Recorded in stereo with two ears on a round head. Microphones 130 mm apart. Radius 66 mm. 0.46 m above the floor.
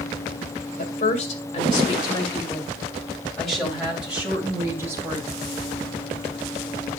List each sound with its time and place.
0.8 s a woman speaking: 50° left (ahead or behind), 2.5 m; by 5.3 s 20° right (ahead or behind), 3.5 m